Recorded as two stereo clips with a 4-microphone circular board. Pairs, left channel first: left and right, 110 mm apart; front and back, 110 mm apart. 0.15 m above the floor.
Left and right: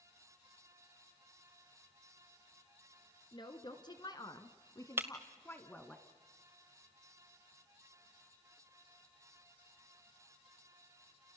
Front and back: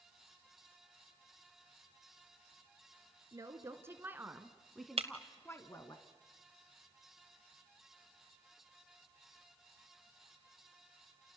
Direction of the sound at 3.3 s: 130° left.